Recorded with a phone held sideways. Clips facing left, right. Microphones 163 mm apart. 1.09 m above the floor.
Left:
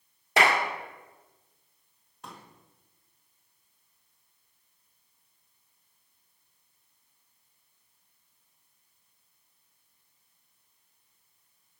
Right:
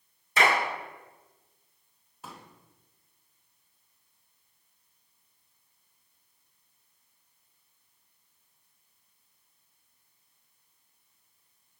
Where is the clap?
75° left (ahead or behind), 1.6 m.